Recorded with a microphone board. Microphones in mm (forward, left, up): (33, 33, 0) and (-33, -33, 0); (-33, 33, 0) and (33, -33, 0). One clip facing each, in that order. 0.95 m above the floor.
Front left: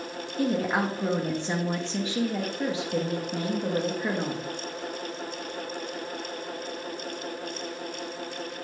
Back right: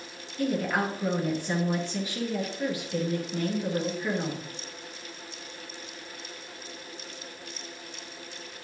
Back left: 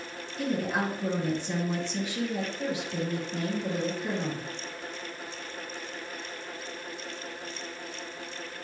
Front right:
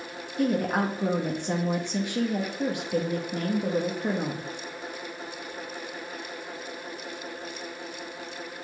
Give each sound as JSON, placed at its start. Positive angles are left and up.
{"t": 0.4, "sound": "a woman speaking", "azimuth_deg": -20, "distance_m": 1.6}